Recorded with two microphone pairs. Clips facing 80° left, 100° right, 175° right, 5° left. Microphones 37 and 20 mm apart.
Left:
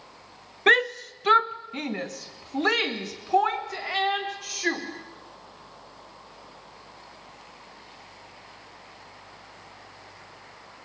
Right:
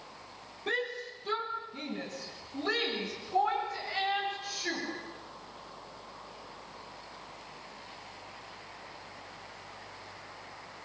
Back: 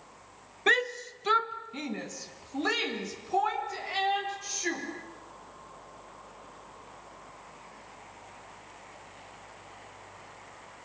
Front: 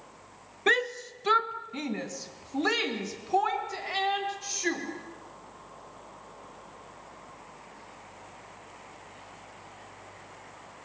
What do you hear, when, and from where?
0.7 s a shout: 100° left, 1.1 m; by 4.8 s 80° left, 5 m